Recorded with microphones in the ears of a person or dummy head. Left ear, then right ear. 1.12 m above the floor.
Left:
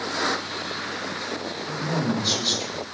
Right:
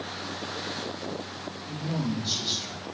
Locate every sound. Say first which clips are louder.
1.7 s a man speaking: left 7 dB; 20° left (ahead or behind), 6 m; by 2.9 s 30° left (ahead or behind), 5.5 m